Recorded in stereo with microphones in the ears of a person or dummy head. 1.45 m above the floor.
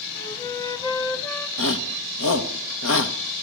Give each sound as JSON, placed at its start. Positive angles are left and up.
{"t": 0.1, "sound": "a flute", "side_deg": 20, "distance_m": 1.4}
{"t": 1.6, "sound": "a shout", "side_deg": 75, "distance_m": 1.6}